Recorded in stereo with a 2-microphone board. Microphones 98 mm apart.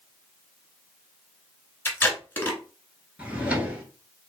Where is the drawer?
15° right (ahead or behind), 1.0 m.